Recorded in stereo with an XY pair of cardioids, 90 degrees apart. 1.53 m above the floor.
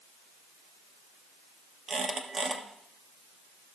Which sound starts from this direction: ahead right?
A squeak, at 1.9 s.